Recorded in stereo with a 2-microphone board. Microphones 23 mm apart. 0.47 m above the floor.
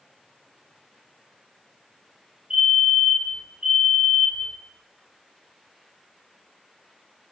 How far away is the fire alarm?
About 4.5 m.